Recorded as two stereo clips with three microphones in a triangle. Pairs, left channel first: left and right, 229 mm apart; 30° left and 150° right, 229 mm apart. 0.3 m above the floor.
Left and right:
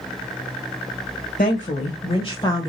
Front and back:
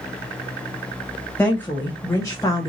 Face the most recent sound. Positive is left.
turn(degrees=60)